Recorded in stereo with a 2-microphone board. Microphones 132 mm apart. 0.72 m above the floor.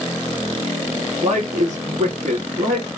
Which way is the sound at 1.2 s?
65° right (ahead or behind).